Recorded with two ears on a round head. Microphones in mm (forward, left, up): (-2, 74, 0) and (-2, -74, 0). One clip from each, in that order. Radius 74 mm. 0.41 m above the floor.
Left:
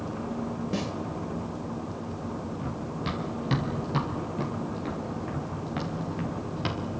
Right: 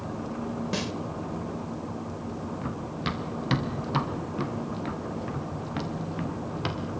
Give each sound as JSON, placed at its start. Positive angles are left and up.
{"t": 0.7, "sound": "a snare drum", "side_deg": -40, "distance_m": 1.5}
{"t": 2.6, "sound": "running footsteps", "side_deg": -40, "distance_m": 3.5}